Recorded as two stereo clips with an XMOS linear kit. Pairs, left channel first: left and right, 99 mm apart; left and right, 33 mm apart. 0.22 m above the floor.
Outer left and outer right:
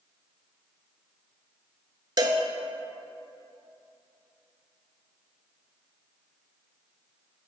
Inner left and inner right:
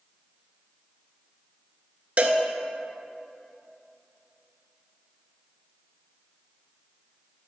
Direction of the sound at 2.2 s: 40° right (ahead or behind).